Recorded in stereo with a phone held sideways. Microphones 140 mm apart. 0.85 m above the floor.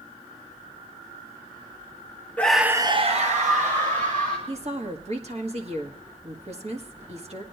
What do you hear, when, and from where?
2.4 s a scream: 10° left (ahead or behind), 0.9 m; by 4.4 s 65° right (ahead or behind), 2 m
4.5 s a woman speaking: 50° right (ahead or behind), 1.6 m